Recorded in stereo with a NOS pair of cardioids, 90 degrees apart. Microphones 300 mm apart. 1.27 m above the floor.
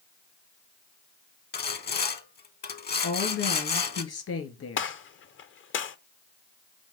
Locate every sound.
1.5 s sawing: 35° left, 1.0 m
3.0 s a woman speaking: 55° left, 2.5 m
4.8 s a gunshot: 45° left, 0.7 m